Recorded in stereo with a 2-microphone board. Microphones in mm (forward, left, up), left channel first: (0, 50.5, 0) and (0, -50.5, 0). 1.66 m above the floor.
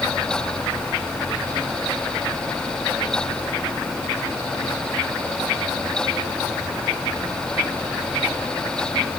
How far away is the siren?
I don't hear a siren.